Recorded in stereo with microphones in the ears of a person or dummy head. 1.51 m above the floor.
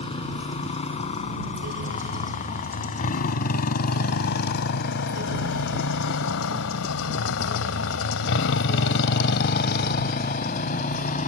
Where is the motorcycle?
40° left (ahead or behind).